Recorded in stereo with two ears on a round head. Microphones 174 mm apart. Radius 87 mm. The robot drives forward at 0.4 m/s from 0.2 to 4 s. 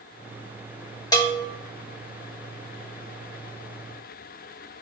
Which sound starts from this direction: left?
A bell, at 1.1 s.